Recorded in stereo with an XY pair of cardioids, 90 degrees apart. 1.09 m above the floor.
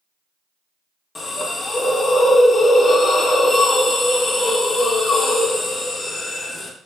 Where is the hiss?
40° left, 0.6 m.